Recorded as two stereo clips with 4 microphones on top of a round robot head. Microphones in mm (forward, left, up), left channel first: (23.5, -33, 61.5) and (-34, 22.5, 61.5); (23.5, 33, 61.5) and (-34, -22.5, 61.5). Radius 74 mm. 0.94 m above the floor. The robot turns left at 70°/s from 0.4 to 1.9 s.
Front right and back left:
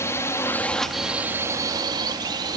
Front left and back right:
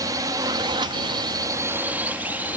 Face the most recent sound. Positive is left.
turn(degrees=155)